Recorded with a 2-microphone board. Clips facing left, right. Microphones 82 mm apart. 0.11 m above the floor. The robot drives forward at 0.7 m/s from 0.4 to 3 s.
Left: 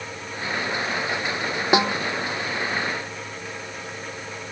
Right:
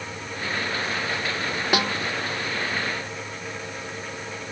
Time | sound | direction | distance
1.7 | a snare drum | 25° left (ahead or behind) | ?